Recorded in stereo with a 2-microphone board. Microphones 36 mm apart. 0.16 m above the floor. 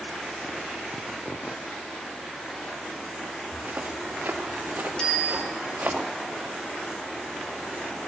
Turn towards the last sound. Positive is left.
turn(degrees=25)  # may be behind; listen again after turning